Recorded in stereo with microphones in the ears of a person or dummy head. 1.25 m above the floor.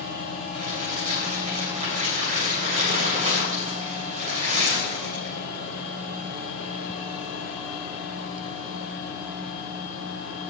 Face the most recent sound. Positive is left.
turn(degrees=-40)  # may be behind; listen again after turning